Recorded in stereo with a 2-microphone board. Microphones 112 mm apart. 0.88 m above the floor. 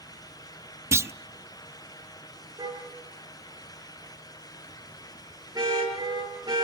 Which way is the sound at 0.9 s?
25° right (ahead or behind).